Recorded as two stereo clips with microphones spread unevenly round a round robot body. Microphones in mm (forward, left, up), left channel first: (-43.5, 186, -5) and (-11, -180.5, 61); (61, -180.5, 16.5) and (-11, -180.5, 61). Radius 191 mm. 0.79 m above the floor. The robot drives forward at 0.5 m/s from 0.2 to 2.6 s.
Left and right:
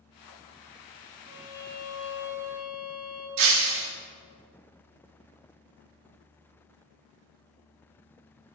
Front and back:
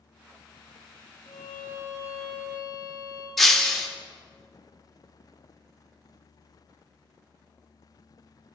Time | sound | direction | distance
1.2 | a violin | 5° left | 2.5 m
3.4 | breaking glass | 90° right | 1.3 m